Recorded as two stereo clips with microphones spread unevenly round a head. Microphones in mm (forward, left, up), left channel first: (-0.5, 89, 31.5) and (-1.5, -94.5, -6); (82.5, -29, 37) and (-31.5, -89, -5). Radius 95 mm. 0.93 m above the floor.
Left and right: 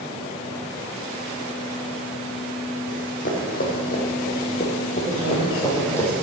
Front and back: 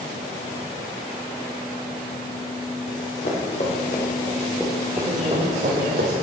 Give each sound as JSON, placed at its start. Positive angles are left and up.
{"t": 2.9, "sound": "running footsteps", "azimuth_deg": 45, "distance_m": 3.0}
{"t": 5.0, "sound": "a man speaking", "azimuth_deg": 180, "distance_m": 4.0}